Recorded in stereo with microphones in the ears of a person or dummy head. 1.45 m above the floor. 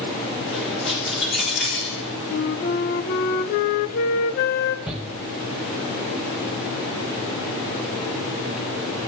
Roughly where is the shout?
Centre.